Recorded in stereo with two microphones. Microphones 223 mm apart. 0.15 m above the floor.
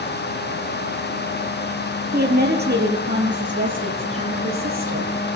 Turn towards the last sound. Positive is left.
turn(degrees=-70)  # may be behind; listen again after turning